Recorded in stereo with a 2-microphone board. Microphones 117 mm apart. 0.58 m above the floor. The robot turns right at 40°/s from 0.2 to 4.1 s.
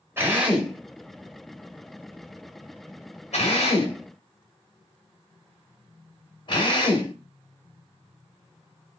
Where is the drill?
20° right (ahead or behind), 1.6 m; by 7.1 s 45° left (ahead or behind), 1.6 m.